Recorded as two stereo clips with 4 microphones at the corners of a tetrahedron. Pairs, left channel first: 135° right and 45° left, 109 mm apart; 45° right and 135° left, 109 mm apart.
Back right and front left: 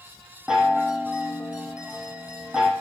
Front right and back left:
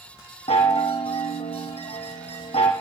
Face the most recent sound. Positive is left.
turn(degrees=-40)